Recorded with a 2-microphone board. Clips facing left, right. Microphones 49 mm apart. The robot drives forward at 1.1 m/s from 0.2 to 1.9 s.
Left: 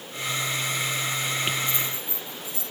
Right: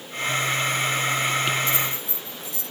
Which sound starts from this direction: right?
Keys jangling, at 1.7 s.